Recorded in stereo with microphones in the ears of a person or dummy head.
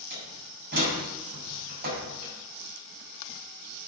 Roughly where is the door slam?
Right.